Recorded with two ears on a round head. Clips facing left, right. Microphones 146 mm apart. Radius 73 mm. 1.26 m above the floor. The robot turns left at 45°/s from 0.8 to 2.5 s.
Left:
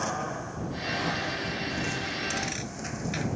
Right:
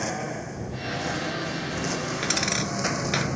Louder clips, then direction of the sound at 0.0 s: Right 2 dB; 20° right (ahead or behind).